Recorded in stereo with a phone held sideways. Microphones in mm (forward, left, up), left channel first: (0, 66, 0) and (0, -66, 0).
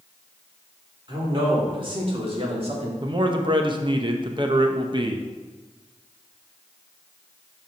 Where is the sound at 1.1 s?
35° right (ahead or behind), 3 m; by 2.9 s 50° right (ahead or behind), 1.9 m.